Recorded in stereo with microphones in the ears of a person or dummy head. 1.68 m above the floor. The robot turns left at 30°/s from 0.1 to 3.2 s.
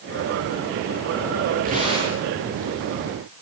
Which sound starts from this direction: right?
Tearing paper, at 1.6 s.